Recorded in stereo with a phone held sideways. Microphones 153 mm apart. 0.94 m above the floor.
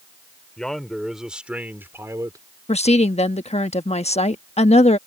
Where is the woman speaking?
45° left (ahead or behind).